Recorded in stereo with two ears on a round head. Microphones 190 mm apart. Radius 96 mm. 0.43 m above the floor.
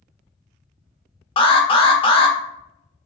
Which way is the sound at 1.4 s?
25° left (ahead or behind).